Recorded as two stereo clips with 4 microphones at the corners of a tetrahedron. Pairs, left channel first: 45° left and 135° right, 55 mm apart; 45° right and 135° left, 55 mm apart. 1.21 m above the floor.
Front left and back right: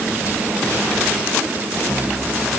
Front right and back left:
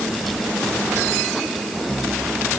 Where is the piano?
No piano in this recording.